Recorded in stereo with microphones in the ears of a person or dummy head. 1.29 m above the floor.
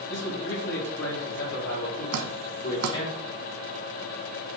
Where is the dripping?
80° right, 1.0 m.